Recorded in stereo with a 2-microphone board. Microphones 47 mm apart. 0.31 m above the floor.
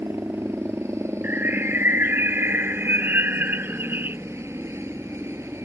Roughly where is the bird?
Right.